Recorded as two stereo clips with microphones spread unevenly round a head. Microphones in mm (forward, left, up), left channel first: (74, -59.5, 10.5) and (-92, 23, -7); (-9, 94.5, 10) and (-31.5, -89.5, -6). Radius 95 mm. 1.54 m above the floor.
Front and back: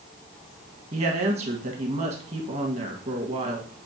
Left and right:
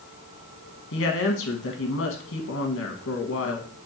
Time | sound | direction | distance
0.9 | a woman speaking | 95° left | 1.7 m